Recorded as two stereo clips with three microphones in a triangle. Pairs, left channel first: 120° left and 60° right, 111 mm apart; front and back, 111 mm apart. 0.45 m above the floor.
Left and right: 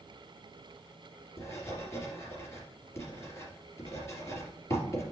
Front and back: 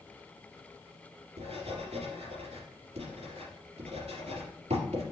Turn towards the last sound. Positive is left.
turn(degrees=-175)